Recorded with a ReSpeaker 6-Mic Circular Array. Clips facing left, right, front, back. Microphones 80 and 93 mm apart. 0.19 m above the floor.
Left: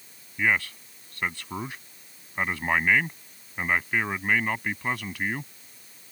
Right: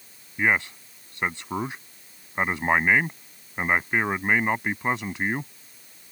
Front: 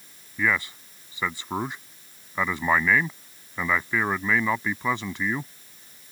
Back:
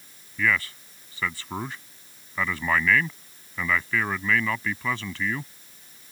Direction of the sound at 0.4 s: 50° right.